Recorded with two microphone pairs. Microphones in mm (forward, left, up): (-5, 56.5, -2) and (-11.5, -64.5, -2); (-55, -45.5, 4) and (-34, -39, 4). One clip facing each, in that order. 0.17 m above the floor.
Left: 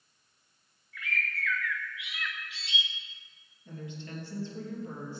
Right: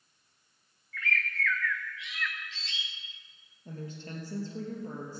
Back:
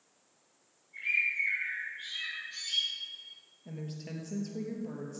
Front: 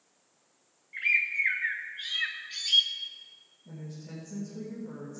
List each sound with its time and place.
0.9 s a bird: 10° left, 2.5 m
3.6 s a woman speaking: 140° right, 3 m